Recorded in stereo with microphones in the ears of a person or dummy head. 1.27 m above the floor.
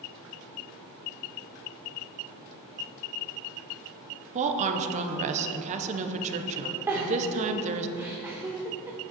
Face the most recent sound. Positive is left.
turn(degrees=-10)  # may be behind; listen again after turning